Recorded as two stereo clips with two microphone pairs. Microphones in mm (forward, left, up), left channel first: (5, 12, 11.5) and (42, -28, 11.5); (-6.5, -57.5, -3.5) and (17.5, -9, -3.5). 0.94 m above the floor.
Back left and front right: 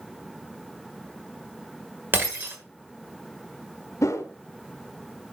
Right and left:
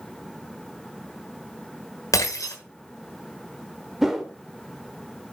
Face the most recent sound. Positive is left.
turn(degrees=150)